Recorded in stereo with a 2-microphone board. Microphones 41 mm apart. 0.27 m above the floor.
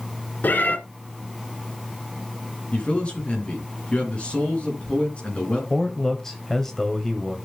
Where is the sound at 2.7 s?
35° left (ahead or behind), 4 m.